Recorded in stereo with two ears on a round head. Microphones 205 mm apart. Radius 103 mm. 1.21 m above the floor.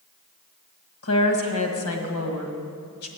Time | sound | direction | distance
1.0 | a woman speaking | 75° left (ahead or behind) | 1.5 m